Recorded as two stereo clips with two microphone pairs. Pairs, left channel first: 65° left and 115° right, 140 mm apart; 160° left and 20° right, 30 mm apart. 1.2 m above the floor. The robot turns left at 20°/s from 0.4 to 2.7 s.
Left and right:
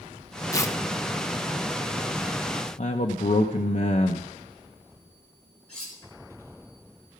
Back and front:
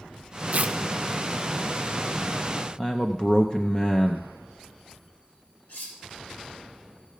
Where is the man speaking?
90° left, 0.7 m.